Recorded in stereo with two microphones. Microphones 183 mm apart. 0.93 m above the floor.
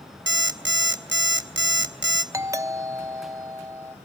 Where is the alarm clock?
80° right, 0.9 m.